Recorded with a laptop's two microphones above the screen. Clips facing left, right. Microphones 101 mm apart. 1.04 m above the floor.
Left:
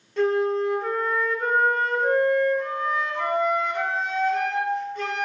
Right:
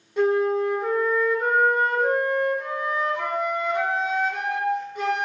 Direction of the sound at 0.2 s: 15° right (ahead or behind).